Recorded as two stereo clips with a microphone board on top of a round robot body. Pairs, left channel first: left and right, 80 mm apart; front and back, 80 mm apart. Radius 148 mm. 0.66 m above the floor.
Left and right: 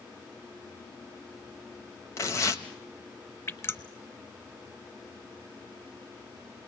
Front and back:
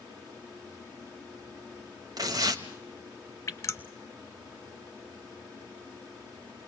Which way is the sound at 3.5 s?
45° left.